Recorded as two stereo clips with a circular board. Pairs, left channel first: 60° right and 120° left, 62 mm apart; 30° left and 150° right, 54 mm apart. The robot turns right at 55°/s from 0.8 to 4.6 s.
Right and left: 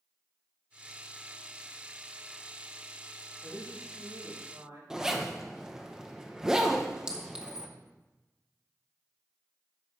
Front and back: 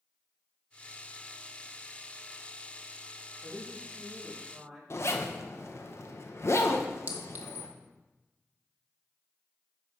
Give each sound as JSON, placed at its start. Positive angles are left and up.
{"t": 3.4, "sound": "a man speaking", "azimuth_deg": 50, "distance_m": 3.5}
{"t": 4.9, "sound": "a zipper", "azimuth_deg": 40, "distance_m": 0.9}
{"t": 7.1, "sound": "a clink", "azimuth_deg": -175, "distance_m": 1.1}